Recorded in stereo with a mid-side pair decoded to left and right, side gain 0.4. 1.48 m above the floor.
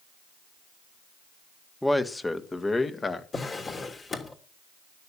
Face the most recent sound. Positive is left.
turn(degrees=40)